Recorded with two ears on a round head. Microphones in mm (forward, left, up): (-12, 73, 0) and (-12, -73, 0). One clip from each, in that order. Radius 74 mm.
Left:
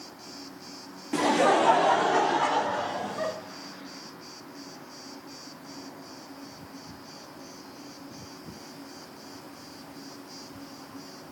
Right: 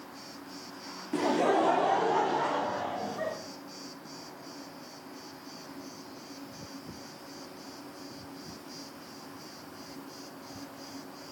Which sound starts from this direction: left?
Laughter, at 1.1 s.